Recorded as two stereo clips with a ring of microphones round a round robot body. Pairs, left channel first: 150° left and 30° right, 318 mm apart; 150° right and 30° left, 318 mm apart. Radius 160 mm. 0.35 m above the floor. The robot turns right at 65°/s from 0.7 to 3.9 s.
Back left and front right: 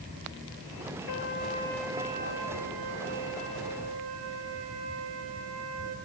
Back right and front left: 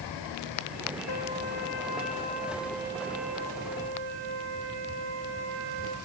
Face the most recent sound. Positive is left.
turn(degrees=15)